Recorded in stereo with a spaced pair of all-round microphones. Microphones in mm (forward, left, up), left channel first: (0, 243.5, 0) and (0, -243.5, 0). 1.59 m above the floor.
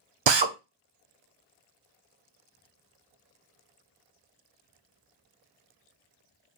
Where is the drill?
65° right (ahead or behind), 0.5 m.